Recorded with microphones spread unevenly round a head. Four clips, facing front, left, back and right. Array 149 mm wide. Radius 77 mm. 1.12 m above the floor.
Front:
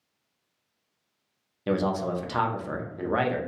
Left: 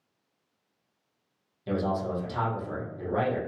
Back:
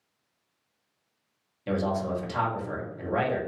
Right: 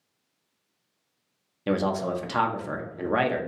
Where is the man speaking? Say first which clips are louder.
Right 3 dB, front 2 dB; 60° right, 0.8 m.